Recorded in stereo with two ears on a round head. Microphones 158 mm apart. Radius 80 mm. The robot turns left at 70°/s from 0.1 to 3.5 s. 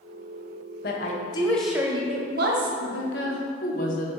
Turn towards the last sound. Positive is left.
turn(degrees=45)